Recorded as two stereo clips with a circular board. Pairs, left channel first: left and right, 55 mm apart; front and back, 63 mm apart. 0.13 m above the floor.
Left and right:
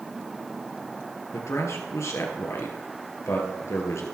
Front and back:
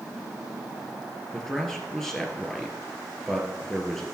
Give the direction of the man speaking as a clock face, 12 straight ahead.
9 o'clock.